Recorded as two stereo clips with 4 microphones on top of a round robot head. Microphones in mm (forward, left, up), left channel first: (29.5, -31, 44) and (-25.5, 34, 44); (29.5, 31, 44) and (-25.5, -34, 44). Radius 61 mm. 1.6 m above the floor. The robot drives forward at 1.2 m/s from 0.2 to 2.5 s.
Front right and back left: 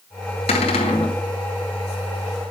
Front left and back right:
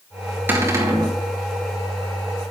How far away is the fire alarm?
No fire alarm in this recording.